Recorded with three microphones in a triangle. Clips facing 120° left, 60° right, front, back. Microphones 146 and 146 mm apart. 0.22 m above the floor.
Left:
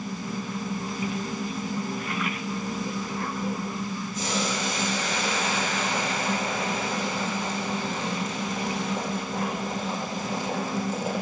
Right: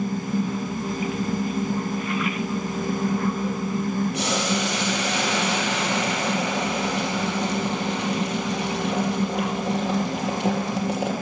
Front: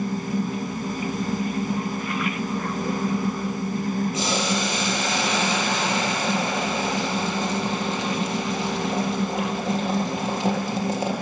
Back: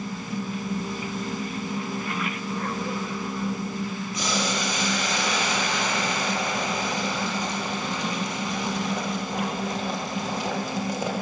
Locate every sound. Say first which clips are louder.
4.1 s boiling: right 4 dB, front 3 dB; 65° right, 6.5 m